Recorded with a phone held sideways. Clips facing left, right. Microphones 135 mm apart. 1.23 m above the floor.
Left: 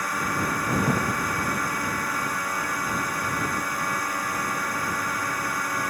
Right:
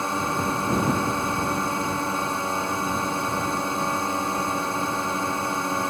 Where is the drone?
25° right (ahead or behind).